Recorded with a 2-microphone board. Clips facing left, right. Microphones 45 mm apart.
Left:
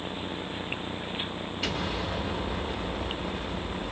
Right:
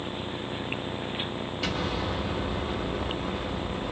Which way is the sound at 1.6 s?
5° left (ahead or behind).